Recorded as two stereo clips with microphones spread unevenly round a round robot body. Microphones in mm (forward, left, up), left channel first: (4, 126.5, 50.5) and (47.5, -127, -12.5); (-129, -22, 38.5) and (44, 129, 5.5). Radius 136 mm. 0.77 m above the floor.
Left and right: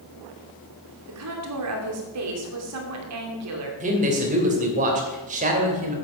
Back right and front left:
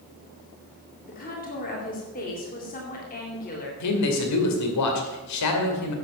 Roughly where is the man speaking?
Behind right.